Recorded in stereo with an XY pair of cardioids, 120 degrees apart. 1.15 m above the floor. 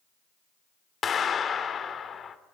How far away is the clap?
About 3 m.